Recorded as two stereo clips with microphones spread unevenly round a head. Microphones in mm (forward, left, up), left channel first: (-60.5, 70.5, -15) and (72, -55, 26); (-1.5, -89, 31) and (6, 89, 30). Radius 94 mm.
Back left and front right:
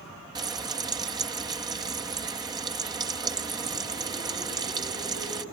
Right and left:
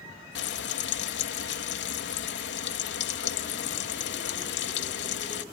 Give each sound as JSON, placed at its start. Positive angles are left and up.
{"t": 0.3, "sound": "frying", "azimuth_deg": -115}